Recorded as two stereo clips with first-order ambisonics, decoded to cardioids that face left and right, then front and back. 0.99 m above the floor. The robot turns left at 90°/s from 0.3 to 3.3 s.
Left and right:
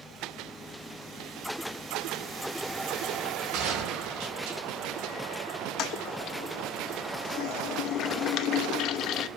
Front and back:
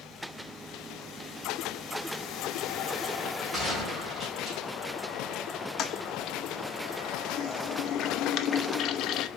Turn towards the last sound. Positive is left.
turn(degrees=45)